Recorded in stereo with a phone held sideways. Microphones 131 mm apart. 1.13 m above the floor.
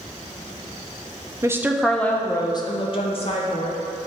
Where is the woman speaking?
20° right (ahead or behind), 0.6 m; by 3.8 s 55° left (ahead or behind), 1.4 m.